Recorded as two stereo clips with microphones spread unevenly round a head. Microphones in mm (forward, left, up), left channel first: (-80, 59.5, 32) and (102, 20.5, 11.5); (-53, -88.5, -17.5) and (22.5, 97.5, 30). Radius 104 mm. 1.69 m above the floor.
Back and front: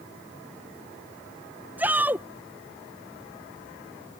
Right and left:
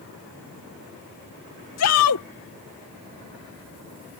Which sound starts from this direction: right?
A shout, at 1.8 s.